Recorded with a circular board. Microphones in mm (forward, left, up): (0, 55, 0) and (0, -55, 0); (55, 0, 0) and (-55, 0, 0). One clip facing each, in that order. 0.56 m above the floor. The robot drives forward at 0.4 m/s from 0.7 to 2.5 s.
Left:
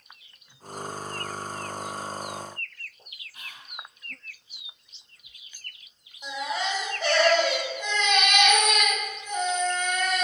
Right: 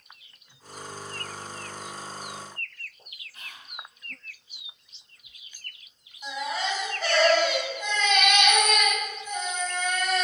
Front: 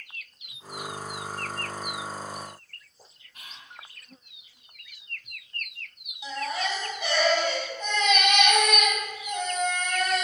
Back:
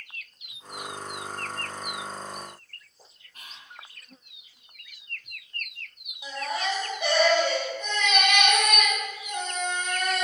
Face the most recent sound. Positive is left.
turn(degrees=160)